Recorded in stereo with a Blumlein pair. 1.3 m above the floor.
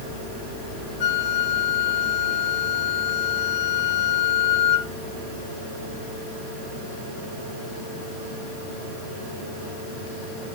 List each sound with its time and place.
1.0 s a flute: 45° left, 1.2 m